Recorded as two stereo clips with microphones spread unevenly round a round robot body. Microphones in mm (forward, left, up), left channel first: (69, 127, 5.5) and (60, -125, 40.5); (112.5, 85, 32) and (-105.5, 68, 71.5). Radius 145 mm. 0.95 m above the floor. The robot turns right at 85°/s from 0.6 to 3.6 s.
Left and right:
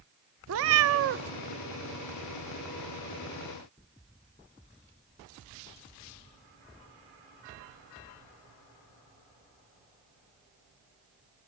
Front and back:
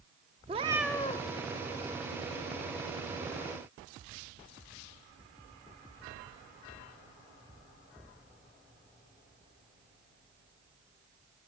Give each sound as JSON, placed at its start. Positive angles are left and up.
{"t": 0.5, "sound": "a cat meowing", "azimuth_deg": -115, "distance_m": 0.6}